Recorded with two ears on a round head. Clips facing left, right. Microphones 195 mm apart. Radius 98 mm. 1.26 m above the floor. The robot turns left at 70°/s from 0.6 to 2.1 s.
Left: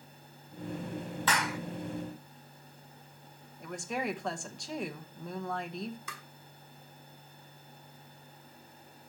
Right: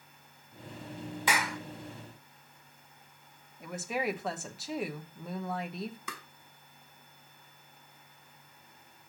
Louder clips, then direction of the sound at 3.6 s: Right 2 dB; 5° right (ahead or behind).